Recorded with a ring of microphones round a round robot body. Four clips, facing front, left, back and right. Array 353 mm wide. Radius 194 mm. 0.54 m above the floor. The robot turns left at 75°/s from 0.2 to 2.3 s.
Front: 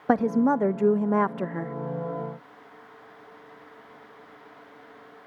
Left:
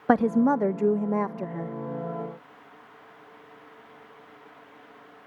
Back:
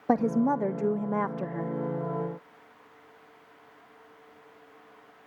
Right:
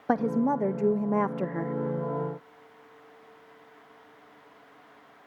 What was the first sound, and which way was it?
A woman speaking, 65° left.